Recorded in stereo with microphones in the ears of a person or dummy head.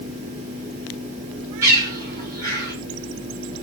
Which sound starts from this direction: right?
A bird, at 1.6 s.